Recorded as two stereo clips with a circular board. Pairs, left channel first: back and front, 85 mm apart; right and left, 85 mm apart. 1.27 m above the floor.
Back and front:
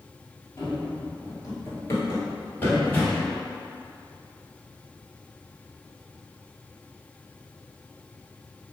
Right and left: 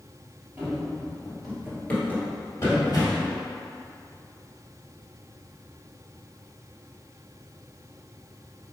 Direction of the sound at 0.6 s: 150° left.